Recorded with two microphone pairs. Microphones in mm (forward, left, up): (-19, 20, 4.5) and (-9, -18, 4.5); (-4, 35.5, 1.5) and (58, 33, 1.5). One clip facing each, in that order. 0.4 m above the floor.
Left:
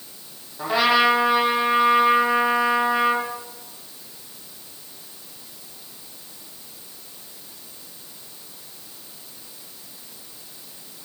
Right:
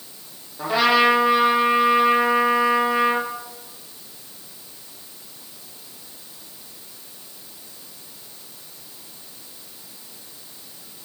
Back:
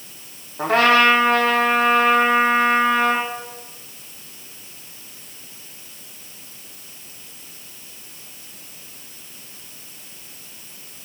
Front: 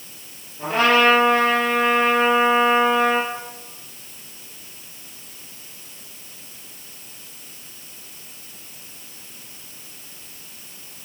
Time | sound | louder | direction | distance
0.6 | a trumpet | right 1 dB, back 2 dB | 170° right | 8 m